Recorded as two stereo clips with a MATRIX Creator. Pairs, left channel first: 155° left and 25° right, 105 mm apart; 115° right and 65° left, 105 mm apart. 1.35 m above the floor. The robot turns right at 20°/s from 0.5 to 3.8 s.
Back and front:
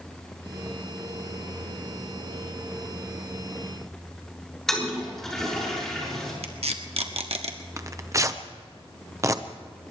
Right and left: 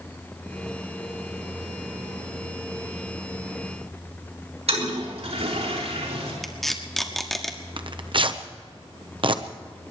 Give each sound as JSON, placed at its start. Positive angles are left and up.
{"t": 4.7, "sound": "a toilet flushing", "azimuth_deg": 70, "distance_m": 5.5}
{"t": 6.4, "sound": "tape being pulled", "azimuth_deg": -25, "distance_m": 1.5}
{"t": 7.8, "sound": "tearing paper", "azimuth_deg": 35, "distance_m": 0.9}